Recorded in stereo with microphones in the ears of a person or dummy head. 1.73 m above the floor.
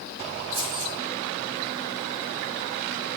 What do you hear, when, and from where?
0.5 s keys jangling: 50° right (ahead or behind), 3.5 m